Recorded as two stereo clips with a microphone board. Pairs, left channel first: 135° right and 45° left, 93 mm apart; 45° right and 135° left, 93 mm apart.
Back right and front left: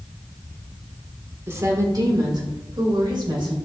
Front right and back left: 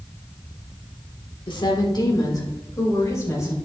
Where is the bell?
No bell in this recording.